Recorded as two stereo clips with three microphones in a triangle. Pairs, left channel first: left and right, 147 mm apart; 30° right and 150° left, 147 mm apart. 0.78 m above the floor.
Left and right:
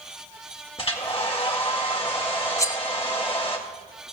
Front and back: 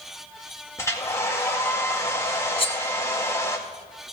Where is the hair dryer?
40° left, 1.8 m.